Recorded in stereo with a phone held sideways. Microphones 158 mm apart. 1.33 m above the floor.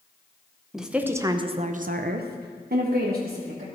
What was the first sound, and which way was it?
A woman speaking, centre (ahead or behind).